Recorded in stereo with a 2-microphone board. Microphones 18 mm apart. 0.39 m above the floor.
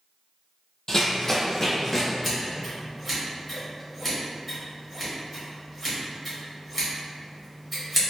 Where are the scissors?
5° left (ahead or behind), 1.1 m.